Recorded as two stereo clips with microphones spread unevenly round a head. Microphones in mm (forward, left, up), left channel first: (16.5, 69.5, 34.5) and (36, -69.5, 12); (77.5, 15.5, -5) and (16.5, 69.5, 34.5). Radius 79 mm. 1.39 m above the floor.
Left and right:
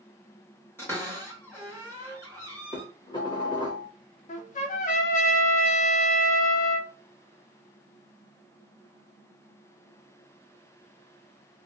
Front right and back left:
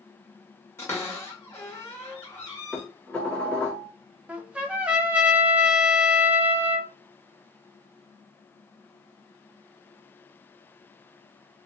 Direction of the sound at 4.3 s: 60° left.